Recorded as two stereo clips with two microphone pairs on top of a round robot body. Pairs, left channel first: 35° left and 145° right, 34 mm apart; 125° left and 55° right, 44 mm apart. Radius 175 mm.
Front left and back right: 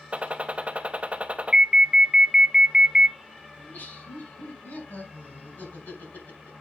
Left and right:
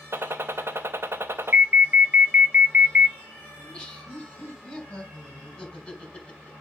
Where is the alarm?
75° right, 1.9 m.